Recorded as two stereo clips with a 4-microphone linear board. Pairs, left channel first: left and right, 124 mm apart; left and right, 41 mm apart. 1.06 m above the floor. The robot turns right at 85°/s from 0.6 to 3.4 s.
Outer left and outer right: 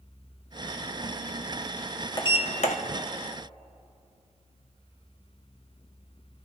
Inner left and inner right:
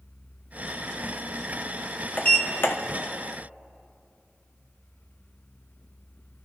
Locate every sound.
2.2 s a sliding door: 35° left, 1.0 m; by 2.8 s 85° left, 1.0 m